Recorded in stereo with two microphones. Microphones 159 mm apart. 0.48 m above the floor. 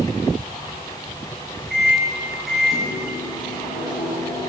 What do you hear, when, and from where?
1.7 s a microwave: centre (ahead or behind), 5 m